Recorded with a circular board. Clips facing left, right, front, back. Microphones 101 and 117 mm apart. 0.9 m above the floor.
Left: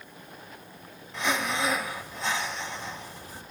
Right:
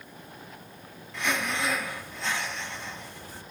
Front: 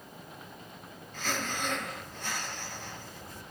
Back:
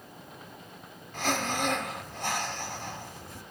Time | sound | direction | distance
1.1 | breathing | 160° left | 1.0 m